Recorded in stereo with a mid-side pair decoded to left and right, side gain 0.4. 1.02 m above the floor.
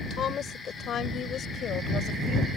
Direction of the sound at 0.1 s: 60° left.